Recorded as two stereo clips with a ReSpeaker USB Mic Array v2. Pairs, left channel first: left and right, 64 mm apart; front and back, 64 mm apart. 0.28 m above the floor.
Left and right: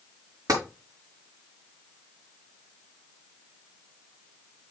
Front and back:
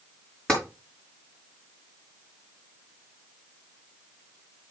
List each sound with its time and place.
0.5 s tapping: 75° right, 5 m